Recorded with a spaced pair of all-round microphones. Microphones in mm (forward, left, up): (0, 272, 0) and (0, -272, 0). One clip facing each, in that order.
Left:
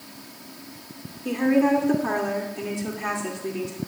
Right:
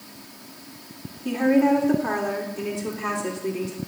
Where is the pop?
I don't hear a pop.